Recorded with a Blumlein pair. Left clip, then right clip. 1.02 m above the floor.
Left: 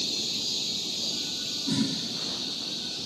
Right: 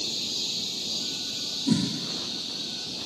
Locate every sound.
1.7 s a whoosh: 25° right, 5.5 m